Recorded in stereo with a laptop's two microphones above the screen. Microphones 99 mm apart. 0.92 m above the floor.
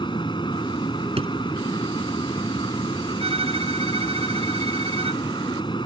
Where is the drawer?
85° right.